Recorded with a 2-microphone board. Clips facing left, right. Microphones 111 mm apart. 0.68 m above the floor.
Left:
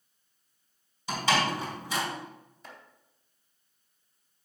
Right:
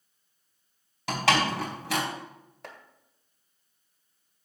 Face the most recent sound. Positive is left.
turn(degrees=-65)  # may be behind; listen again after turning